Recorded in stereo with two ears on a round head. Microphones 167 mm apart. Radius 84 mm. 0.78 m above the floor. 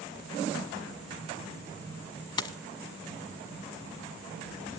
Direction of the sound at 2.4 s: 25° left (ahead or behind).